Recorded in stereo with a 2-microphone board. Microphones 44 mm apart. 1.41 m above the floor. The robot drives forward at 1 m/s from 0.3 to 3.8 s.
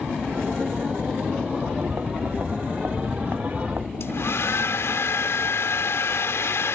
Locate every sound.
1.6 s footsteps: 45° right (ahead or behind); by 3.9 s 50° right (ahead or behind)
4.0 s a hair dryer: 75° left (ahead or behind)